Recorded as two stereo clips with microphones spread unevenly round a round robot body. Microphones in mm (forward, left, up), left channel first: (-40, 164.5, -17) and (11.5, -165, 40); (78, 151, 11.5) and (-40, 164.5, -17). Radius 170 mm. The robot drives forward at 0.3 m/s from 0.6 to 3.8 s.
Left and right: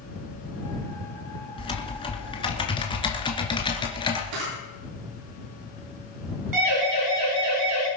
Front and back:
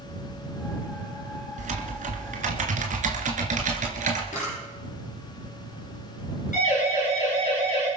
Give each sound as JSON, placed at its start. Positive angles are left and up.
{"t": 1.6, "sound": "typing on a keyboard", "azimuth_deg": 175, "distance_m": 2.0}
{"t": 4.3, "sound": "a camera shutter", "azimuth_deg": -60, "distance_m": 9.5}
{"t": 6.5, "sound": "a siren", "azimuth_deg": -45, "distance_m": 8.5}